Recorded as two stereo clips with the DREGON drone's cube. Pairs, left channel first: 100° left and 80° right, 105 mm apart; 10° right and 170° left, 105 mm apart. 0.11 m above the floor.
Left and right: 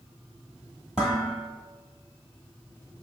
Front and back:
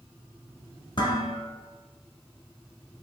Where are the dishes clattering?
Straight ahead, 1.2 m.